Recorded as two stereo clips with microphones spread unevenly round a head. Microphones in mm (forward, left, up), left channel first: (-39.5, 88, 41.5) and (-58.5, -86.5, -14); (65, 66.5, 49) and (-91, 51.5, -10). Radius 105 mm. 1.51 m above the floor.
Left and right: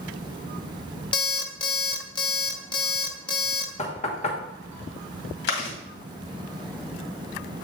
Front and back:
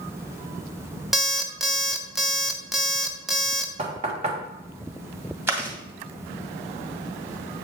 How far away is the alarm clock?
About 0.7 m.